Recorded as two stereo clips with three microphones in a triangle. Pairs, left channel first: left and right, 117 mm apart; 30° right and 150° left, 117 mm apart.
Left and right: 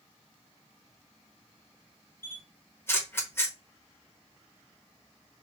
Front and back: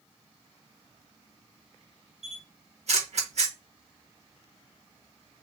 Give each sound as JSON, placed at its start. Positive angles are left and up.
{"t": 2.2, "sound": "a camera shutter", "azimuth_deg": 160, "distance_m": 0.7}